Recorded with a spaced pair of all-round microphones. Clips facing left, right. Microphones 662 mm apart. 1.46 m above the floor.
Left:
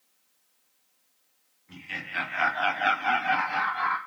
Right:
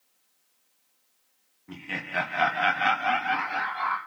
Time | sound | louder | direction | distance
1.7 | laughter | right 7 dB | 80° right | 1.4 m